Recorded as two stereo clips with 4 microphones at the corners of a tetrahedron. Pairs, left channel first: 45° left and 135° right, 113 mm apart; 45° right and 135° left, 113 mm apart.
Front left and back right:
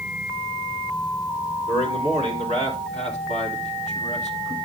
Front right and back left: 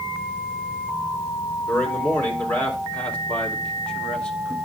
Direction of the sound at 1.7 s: 30° left.